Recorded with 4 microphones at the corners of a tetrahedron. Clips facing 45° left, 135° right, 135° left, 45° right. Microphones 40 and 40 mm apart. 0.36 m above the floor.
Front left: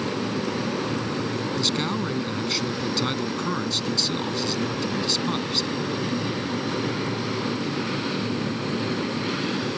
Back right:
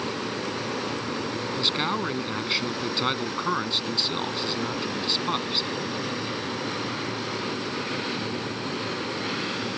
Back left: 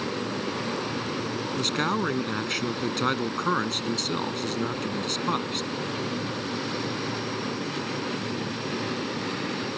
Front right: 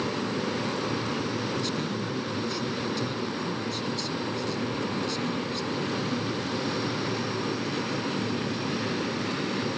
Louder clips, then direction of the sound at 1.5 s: Back right 2 dB, back left 4 dB; 155° left.